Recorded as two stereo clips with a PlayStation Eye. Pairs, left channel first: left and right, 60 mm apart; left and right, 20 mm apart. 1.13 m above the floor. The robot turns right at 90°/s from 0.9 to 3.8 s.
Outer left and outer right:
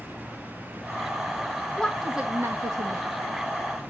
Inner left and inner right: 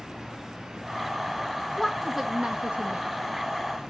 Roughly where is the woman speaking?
Behind.